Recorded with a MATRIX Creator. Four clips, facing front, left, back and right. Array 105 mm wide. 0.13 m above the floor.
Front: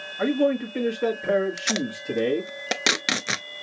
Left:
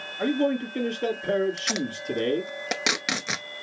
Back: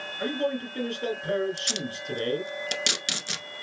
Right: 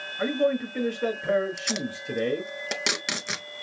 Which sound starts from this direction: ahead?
Tape being pulled, at 1.6 s.